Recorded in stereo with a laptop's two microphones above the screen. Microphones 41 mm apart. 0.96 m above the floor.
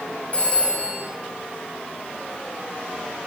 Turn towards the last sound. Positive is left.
turn(degrees=40)  # may be behind; listen again after turning